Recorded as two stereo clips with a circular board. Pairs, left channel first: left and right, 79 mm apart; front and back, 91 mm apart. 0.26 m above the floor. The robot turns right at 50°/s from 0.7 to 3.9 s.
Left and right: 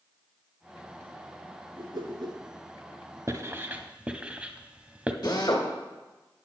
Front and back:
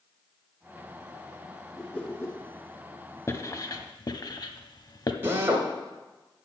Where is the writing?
50° right, 0.7 m; by 5.1 s 20° right, 0.7 m.